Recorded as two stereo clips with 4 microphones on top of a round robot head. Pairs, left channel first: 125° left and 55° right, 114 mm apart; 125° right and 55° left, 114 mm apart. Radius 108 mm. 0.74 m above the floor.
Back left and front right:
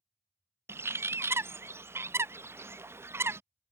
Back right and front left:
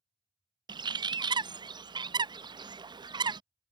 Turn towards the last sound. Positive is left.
turn(degrees=10)